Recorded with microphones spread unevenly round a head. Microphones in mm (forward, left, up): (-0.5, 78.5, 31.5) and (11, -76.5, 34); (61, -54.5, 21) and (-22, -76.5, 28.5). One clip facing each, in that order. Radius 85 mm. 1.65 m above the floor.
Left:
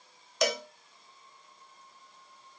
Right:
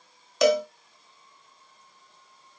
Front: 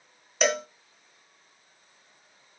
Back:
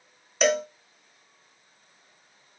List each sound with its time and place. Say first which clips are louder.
0.4 s a cowbell: right 10 dB, back 3 dB; 75° right, 0.6 m